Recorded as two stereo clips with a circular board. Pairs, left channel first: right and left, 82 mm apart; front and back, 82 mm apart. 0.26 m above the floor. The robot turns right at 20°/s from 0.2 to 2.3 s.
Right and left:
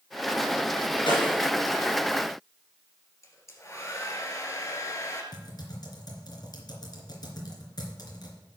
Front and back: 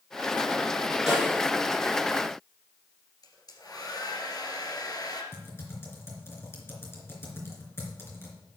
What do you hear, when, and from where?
1.1 s a snare drum: 90° right, 4.5 m; by 1.5 s 85° right, 4.5 m
3.2 s a hair dryer: 40° right, 2 m
5.3 s typing on a keyboard: 60° right, 3 m